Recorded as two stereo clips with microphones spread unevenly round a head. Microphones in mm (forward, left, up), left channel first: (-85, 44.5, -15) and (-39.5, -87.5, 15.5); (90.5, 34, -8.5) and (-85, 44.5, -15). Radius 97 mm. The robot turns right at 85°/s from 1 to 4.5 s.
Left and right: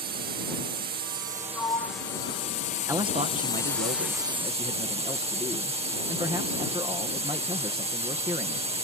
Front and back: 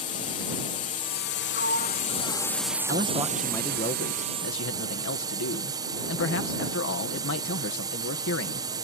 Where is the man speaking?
140° right; by 8.7 s straight ahead.